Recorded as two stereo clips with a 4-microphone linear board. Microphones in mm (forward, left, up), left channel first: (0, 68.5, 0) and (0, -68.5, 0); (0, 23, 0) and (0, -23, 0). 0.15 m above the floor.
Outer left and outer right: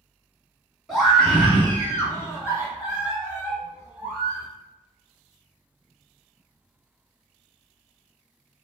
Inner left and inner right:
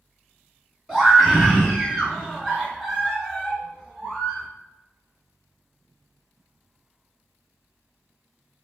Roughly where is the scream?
Centre.